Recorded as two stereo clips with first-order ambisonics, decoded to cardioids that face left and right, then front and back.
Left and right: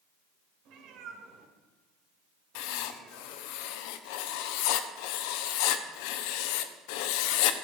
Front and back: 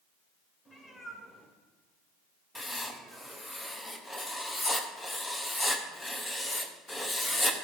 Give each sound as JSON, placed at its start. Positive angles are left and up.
{"t": 0.7, "sound": "a cat meowing", "azimuth_deg": -70, "distance_m": 2.5}
{"t": 2.5, "sound": "writing", "azimuth_deg": 85, "distance_m": 0.9}